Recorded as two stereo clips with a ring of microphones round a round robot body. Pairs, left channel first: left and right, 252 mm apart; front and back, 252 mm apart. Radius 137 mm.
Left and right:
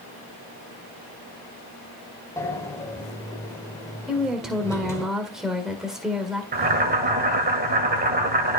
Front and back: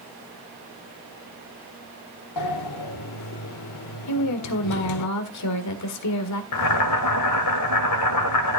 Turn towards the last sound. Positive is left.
turn(degrees=-30)